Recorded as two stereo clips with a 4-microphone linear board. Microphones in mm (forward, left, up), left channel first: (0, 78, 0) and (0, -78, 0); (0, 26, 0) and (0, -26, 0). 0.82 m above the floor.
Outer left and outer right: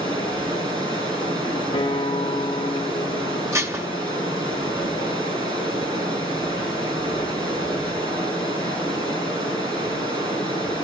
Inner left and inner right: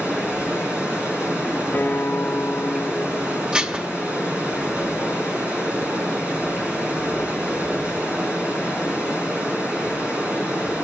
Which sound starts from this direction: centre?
Dishes clattering, at 3.5 s.